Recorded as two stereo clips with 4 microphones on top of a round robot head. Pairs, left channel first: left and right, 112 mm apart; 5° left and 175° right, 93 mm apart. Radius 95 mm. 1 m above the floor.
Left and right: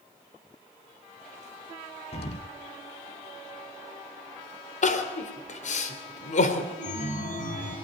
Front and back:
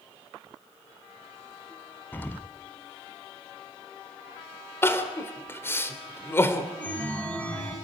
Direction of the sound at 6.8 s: 80° left.